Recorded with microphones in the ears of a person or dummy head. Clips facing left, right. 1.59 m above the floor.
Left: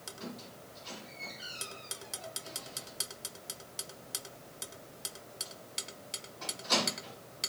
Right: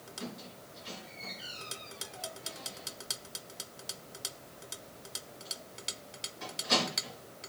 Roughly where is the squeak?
Right.